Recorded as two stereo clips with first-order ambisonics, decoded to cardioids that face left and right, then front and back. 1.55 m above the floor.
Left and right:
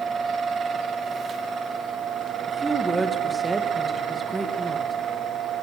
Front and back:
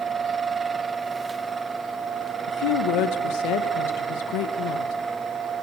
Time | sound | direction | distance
2.5 | a woman speaking | 10° right | 2.0 m